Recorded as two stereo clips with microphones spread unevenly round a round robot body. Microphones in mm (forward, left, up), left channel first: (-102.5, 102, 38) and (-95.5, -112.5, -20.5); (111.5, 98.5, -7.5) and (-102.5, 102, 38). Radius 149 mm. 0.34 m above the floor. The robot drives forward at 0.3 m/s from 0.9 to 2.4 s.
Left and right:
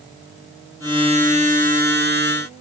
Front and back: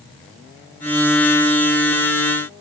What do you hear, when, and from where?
Only background noise.